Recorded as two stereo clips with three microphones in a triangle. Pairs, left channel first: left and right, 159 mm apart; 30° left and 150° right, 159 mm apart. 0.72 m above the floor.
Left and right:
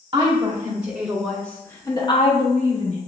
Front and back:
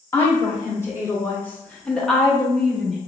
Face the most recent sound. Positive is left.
turn(degrees=125)